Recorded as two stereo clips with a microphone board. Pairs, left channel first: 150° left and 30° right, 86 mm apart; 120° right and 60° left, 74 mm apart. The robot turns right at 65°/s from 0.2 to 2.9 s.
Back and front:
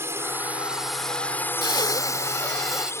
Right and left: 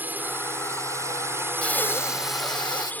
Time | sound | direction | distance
0.0 | a drone | 10° left | ?
1.6 | breathing | 165° left | ?